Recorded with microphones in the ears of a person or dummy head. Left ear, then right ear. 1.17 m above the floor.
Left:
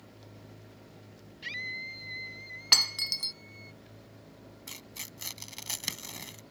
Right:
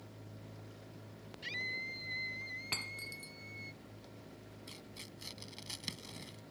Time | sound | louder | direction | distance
1.4 | a scream | left 3 dB | 20° left (ahead or behind) | ?
2.7 | breaking glass | left 19 dB | 55° left (ahead or behind) | ?
4.7 | tearing paper | left 8 dB | 45° left (ahead or behind) | ?